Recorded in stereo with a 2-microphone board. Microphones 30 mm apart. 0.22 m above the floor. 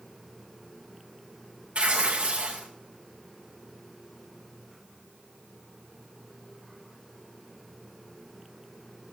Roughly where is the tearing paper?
Right.